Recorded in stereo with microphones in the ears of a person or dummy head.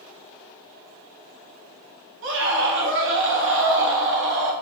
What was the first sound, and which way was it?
A scream, 60° right (ahead or behind).